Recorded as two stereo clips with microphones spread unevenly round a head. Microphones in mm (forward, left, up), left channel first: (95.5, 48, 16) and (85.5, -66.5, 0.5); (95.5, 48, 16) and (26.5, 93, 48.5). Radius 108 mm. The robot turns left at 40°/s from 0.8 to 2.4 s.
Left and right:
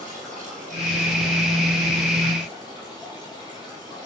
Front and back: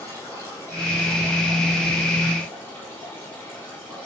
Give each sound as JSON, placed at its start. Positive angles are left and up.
{"t": 0.0, "sound": "running water", "azimuth_deg": -110, "distance_m": 8.0}